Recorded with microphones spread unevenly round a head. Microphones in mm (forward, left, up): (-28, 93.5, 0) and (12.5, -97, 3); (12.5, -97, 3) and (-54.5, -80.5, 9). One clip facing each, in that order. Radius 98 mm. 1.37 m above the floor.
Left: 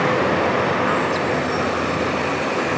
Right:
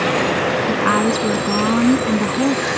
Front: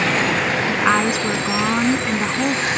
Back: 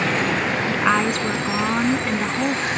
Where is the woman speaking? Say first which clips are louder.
Right 3 dB, front 1 dB; 95° right.